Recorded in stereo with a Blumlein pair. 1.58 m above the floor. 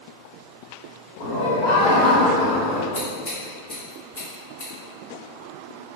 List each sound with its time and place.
1.2 s laughter: 45° left, 1.3 m; by 2.8 s 25° left, 0.5 m
2.9 s scissors: 50° left, 1.1 m